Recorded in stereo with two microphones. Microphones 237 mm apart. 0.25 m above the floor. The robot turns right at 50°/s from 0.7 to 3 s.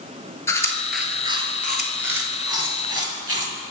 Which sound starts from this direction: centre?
Chewing, at 0.5 s.